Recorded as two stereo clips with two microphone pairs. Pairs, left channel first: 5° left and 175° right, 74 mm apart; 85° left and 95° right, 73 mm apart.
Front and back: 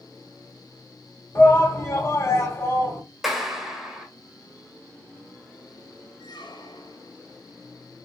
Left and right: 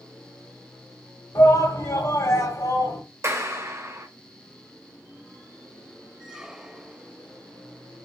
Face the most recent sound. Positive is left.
turn(degrees=-15)